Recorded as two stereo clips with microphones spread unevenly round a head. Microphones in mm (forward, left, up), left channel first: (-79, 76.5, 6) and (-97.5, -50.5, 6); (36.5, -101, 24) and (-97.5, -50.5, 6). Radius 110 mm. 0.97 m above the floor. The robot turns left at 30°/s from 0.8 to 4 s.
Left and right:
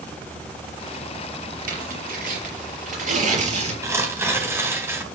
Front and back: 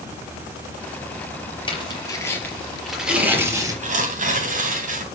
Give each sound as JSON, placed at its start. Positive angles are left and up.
{"t": 1.7, "sound": "tearing paper", "azimuth_deg": -75, "distance_m": 4.5}
{"t": 3.8, "sound": "tearing paper", "azimuth_deg": -165, "distance_m": 3.0}